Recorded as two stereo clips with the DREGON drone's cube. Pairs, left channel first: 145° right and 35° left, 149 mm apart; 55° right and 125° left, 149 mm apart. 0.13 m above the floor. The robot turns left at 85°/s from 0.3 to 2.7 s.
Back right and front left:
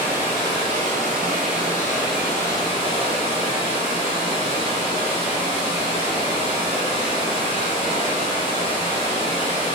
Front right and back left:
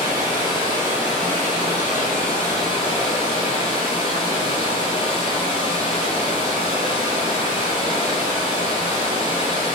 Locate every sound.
0.0 s running water: 105° left, 1.2 m; by 9.8 s 100° right, 1.2 m